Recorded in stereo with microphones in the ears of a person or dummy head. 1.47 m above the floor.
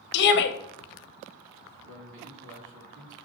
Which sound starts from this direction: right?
A man speaking, at 1.8 s.